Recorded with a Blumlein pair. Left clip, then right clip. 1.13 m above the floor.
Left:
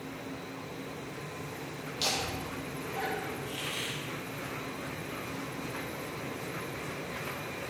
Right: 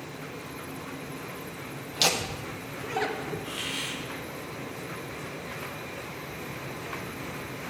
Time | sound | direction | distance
1.9 | laughter | 60° right | 1.4 m
3.5 | a hiss | 10° right | 1.7 m